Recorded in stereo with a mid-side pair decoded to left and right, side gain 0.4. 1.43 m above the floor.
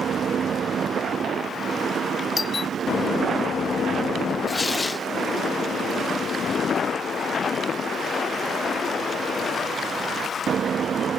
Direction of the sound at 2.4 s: 40° left.